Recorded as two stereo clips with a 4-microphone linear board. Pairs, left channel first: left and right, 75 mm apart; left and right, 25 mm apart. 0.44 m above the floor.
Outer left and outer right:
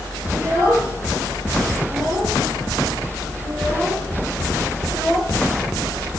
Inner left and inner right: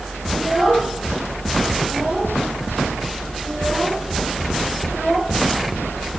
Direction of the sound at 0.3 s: 40° right (ahead or behind).